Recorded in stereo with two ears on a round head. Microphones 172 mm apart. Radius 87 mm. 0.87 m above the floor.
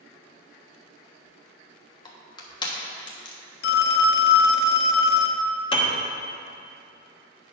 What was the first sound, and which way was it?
Crushing, 25° left (ahead or behind).